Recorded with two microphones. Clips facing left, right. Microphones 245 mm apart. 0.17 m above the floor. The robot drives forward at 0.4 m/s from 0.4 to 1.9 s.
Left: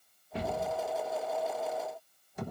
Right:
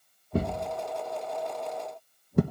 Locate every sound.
0.3 s a thud: 45° right (ahead or behind), 1.4 m; by 2.4 s 65° right (ahead or behind), 1.1 m